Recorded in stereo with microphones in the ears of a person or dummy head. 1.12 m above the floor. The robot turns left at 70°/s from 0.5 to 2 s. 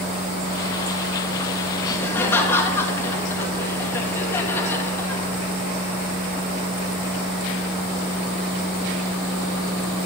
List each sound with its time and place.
1.8 s laughter: 25° left (ahead or behind), 1.7 m; by 5.2 s 15° left (ahead or behind), 1.7 m